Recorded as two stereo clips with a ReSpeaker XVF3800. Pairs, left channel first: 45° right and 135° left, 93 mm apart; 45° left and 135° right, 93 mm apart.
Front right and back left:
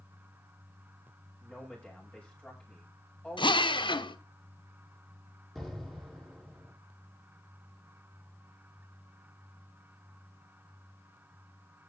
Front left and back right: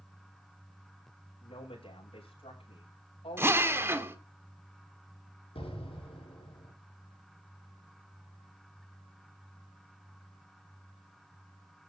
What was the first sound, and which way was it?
A man speaking, 35° left.